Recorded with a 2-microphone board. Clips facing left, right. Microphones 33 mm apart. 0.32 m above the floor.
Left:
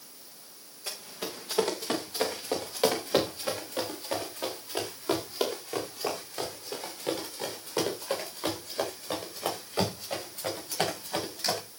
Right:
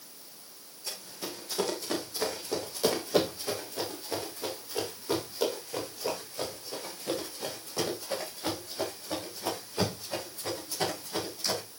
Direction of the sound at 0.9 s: 40° left (ahead or behind).